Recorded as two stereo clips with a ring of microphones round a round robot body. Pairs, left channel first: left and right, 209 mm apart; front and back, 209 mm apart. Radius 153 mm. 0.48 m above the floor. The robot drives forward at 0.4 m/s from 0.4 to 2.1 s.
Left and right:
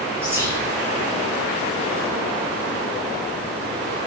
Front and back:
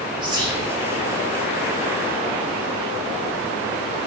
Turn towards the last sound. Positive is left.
turn(degrees=-170)